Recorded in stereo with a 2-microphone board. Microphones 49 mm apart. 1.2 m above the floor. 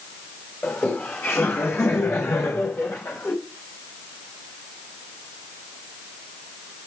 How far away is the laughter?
About 5 m.